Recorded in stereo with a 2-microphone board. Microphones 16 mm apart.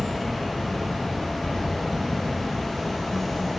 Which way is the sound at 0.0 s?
15° left (ahead or behind).